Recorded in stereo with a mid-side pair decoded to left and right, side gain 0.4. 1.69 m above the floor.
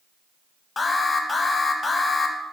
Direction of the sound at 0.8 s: 40° left.